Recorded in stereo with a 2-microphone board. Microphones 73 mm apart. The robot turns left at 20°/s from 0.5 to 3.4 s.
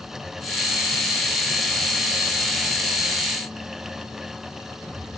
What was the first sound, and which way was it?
Only background noise.